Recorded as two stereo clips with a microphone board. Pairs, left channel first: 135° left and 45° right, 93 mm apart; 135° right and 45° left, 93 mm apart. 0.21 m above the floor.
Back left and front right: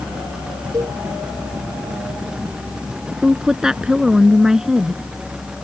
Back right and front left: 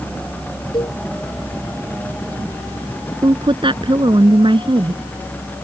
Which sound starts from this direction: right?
A cowbell, at 0.7 s.